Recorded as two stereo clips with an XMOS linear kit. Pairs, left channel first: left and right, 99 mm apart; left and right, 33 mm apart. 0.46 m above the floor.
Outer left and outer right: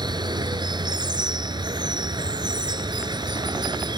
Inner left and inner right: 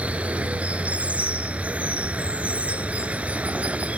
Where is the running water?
50° right (ahead or behind).